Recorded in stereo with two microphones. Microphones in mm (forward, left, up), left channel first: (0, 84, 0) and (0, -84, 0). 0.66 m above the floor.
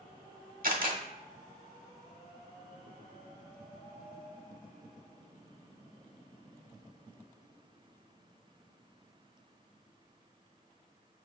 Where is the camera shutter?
65° right (ahead or behind), 0.8 m.